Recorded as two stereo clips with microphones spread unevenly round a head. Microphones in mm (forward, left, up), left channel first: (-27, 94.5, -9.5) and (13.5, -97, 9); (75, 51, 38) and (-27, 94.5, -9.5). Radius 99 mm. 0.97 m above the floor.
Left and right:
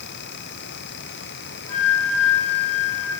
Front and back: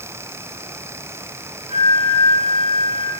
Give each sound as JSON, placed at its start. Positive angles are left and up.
{"t": 1.7, "sound": "a flute", "azimuth_deg": 155, "distance_m": 5.5}